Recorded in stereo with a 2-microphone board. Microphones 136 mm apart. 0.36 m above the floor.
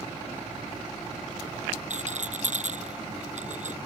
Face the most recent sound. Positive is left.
turn(degrees=-60)  # may be behind; listen again after turning